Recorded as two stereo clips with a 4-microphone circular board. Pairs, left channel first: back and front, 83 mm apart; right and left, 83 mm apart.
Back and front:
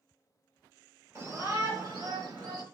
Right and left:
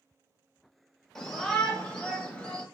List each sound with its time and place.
1.1 s a shout: 5° right, 1.5 m; by 2.6 s 10° right, 2.5 m